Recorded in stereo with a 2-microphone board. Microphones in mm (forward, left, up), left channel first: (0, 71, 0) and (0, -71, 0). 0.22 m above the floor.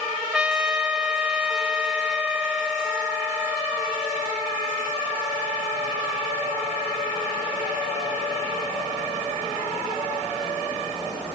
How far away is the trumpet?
About 1.0 m.